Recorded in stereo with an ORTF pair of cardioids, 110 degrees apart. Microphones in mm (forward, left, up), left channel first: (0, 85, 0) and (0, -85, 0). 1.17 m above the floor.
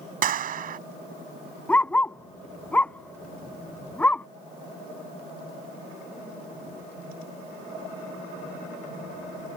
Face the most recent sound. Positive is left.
turn(degrees=10)